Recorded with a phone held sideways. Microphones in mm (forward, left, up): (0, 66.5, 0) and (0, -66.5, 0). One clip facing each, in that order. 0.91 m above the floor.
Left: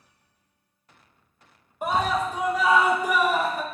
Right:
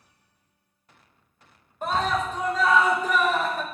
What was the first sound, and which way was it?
A scream, 10° left (ahead or behind).